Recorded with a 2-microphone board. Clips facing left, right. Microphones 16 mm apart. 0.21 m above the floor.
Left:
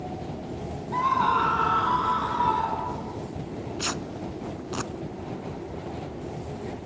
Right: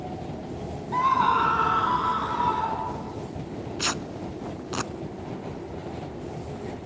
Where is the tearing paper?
20° right (ahead or behind), 0.5 m.